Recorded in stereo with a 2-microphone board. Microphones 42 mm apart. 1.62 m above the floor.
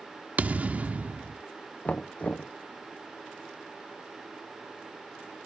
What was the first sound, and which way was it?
A thud, 35° right (ahead or behind).